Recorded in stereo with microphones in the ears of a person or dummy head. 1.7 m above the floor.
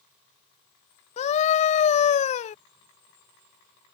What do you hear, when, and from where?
1.2 s a scream: 40° left (ahead or behind)